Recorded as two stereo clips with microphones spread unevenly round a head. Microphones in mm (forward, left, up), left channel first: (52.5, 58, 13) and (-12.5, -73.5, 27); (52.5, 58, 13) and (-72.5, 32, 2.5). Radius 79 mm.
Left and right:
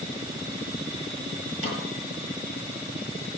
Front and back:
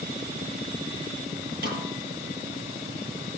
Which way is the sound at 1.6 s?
160° right.